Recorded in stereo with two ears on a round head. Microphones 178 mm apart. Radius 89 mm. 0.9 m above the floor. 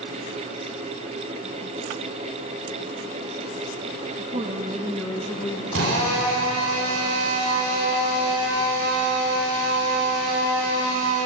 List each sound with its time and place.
4.2 s a woman speaking: 40° right (ahead or behind), 0.7 m; by 5.6 s 20° left (ahead or behind), 0.8 m
5.7 s a drill: 75° right (ahead or behind), 4 m